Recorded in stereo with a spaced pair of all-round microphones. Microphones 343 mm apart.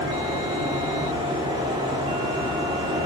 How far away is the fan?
About 2.5 m.